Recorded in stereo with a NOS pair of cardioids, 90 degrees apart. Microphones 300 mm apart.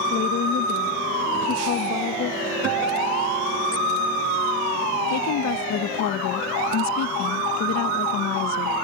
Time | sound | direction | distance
0.1 | a woman speaking | 55° left | ?
2.6 | a guitar | 55° right | ?
5.1 | a woman speaking | 60° left | ?